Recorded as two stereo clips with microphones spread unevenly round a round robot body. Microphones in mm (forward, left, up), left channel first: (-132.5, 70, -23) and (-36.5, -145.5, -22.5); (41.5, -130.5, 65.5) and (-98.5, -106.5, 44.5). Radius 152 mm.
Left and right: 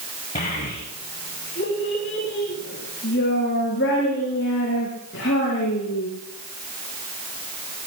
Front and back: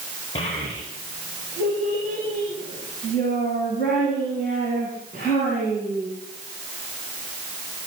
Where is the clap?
No clap in this recording.